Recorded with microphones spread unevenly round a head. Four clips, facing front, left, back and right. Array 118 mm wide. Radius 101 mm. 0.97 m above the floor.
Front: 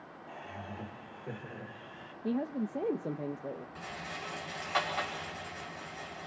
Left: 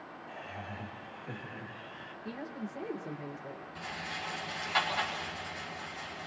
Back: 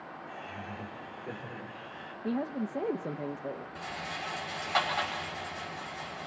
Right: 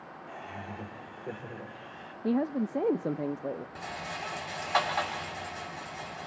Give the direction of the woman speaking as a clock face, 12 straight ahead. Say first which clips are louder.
Right 13 dB, back 1 dB; 4 o'clock.